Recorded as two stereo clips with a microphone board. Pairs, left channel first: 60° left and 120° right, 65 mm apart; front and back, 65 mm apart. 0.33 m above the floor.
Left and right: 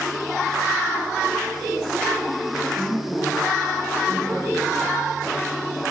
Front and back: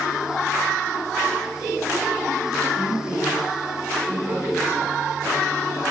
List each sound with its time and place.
2.8 s a woman speaking: 150° left, 7.5 m